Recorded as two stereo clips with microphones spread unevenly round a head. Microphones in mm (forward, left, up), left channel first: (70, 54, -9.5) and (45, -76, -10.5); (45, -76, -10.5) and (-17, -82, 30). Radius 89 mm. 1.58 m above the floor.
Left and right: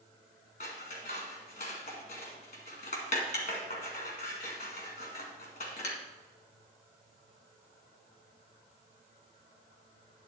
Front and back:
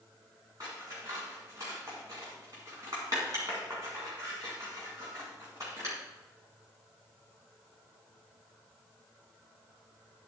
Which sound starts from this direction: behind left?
Scissors, at 0.6 s.